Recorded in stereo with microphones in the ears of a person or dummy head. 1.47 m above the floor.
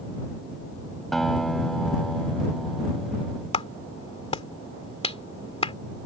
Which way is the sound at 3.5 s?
30° left (ahead or behind).